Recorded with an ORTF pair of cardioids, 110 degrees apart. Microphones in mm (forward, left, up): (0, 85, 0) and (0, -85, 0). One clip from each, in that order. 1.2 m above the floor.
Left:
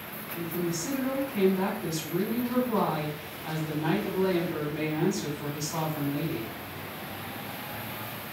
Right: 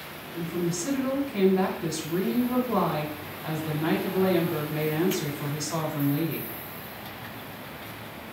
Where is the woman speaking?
65° right, 1.3 m.